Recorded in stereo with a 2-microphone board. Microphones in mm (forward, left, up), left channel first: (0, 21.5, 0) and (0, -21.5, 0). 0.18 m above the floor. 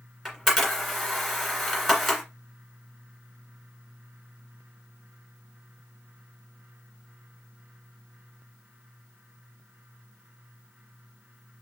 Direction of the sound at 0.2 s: 5° right (ahead or behind).